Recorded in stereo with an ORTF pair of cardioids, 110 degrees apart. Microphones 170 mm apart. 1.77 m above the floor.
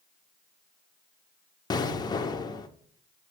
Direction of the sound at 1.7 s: 25° left.